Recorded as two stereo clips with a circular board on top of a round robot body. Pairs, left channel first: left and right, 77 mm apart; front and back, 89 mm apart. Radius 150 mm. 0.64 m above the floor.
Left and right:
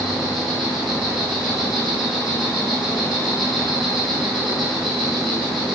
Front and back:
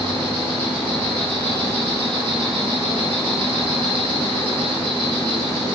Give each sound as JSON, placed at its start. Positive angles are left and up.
{"t": 0.0, "sound": "an insect", "azimuth_deg": 180, "distance_m": 1.6}